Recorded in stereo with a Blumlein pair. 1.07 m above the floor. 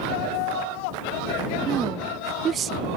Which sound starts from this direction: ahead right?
A woman speaking, at 1.6 s.